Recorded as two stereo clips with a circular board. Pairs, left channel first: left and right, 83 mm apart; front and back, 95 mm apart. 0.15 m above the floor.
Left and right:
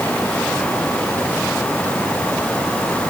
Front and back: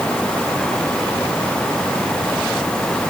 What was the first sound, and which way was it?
Only background noise.